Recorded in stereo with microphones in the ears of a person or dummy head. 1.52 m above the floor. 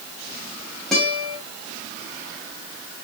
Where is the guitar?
10° left (ahead or behind), 3 m.